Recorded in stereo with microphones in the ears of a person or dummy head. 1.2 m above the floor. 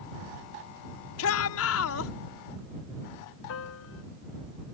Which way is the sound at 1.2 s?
80° left.